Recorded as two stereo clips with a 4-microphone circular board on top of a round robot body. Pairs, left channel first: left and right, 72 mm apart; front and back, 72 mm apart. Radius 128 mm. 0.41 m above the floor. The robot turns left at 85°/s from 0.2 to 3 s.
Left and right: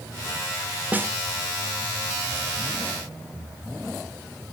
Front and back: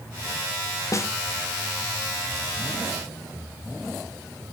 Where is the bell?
I don't hear a bell.